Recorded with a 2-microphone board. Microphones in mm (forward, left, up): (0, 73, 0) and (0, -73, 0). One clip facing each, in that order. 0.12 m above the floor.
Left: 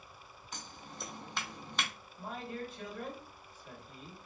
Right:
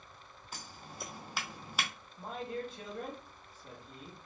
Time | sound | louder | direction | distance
0.5 | scissors | even | 5° right (ahead or behind) | 0.6 m
2.2 | a man speaking | right 2 dB | 30° right (ahead or behind) | 1.9 m